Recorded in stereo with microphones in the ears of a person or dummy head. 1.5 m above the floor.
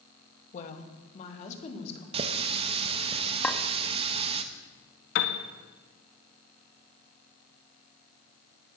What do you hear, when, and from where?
0.5 s a woman speaking: 45° left (ahead or behind), 1.8 m; by 2.0 s 40° left (ahead or behind), 3 m
2.1 s a running tap: 35° right (ahead or behind), 1.0 m
3.4 s a clink: 10° left (ahead or behind), 1.5 m
5.2 s a piano: 60° left (ahead or behind), 1.4 m